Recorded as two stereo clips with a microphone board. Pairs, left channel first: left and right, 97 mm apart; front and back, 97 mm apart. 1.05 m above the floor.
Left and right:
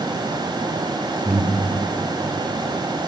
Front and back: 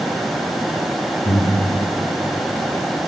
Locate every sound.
1.2 s breathing: 20° right, 5.5 m